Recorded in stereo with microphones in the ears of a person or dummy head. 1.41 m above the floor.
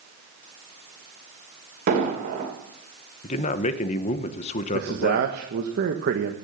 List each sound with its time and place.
1.9 s an explosion: 45° right (ahead or behind), 3 m
3.2 s a man speaking: 35° left (ahead or behind), 1.0 m
4.7 s a man speaking: 55° right (ahead or behind), 1.3 m